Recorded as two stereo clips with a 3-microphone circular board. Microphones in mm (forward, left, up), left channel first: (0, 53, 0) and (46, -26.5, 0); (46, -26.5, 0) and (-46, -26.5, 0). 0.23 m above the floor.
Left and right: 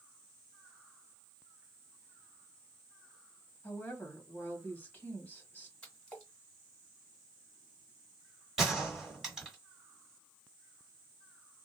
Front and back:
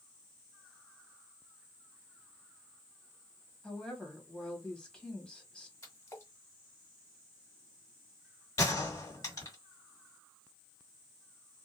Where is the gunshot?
25° left, 1.9 m.